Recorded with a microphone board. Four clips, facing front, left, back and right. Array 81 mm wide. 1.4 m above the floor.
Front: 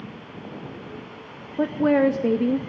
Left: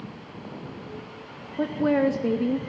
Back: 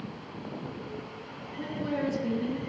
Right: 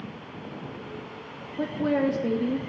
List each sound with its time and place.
1.6 s a woman speaking: 15° left, 0.6 m